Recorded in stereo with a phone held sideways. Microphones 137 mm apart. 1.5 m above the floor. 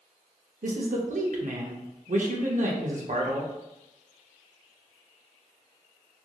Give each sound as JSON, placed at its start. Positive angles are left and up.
{"t": 0.6, "sound": "a man speaking", "side_deg": -65, "distance_m": 0.5}